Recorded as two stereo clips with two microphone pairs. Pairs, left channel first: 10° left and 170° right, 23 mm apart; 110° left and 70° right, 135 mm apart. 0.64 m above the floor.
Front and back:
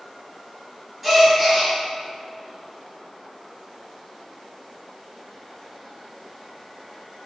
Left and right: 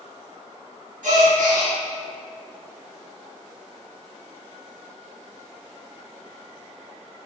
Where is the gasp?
70° right, 0.7 m.